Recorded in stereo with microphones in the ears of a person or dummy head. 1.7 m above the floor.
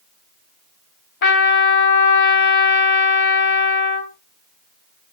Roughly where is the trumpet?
Left.